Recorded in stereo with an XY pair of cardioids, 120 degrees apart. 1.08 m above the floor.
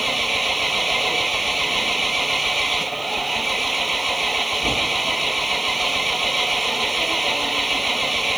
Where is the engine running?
10° right.